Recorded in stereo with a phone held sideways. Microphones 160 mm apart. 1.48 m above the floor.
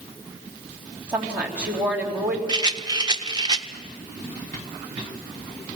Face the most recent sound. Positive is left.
turn(degrees=-25)  # may be behind; listen again after turning